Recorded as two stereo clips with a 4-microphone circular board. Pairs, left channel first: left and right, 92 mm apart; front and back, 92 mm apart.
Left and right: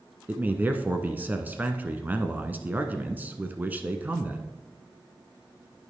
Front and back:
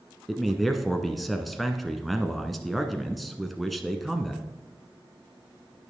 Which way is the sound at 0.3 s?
90° right.